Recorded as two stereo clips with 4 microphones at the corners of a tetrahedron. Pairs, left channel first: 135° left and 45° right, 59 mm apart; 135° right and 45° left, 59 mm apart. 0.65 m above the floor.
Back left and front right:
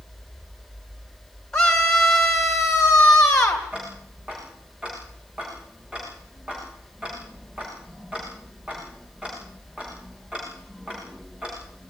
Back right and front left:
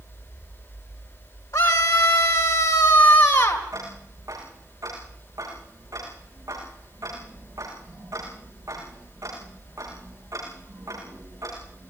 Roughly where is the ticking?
Ahead left.